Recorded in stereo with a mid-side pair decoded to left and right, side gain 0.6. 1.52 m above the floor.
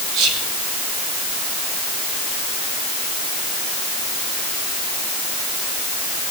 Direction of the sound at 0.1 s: 70° right.